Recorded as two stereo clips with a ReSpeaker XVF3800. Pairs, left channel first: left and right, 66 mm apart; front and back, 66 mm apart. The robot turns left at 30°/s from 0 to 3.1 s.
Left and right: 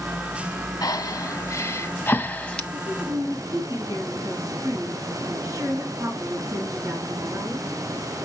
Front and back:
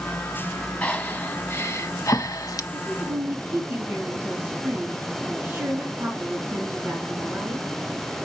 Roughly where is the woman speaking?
Right.